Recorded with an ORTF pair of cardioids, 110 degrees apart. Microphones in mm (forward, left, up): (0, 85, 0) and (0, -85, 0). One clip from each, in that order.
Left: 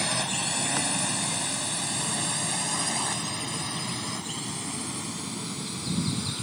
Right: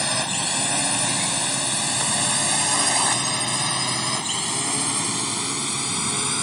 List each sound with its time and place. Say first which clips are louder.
0.0 s a drone: right 4 dB; 25° right; by 6.4 s 70° right